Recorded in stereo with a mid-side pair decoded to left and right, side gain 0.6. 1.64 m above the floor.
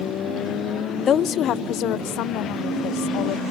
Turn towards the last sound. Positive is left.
turn(degrees=70)